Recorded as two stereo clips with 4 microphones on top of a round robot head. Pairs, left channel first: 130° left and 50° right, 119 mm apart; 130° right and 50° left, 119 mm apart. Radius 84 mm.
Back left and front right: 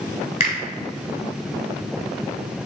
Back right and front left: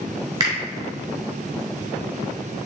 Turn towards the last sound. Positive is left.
turn(degrees=100)